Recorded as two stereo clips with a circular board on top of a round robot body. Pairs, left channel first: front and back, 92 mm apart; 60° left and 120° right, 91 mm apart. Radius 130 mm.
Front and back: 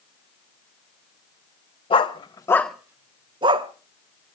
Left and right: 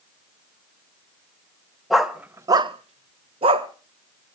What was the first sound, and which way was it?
A dog barking, 30° right.